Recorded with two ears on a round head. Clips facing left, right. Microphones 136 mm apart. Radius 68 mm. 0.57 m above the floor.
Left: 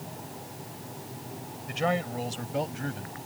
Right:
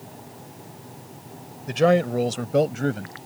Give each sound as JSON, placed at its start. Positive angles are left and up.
{"t": 1.7, "sound": "a man speaking", "side_deg": -65}